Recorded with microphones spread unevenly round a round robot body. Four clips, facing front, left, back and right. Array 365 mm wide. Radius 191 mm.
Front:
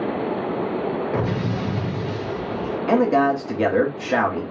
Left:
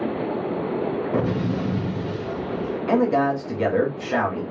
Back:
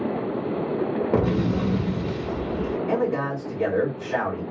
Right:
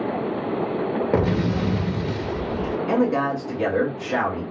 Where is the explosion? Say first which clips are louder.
Right 3 dB, back 2 dB; 120° right, 0.7 m.